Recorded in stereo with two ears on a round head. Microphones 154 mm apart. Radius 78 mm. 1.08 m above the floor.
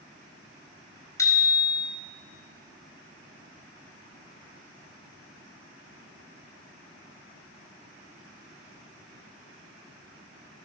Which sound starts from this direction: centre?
A bicycle bell, at 1.2 s.